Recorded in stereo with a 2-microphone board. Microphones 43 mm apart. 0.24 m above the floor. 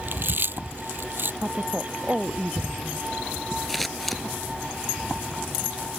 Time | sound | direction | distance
0.1 | chewing | 55° right (ahead or behind) | ?
1.4 | a woman speaking | 35° right (ahead or behind) | ?
3.7 | scissors | centre (ahead or behind) | ?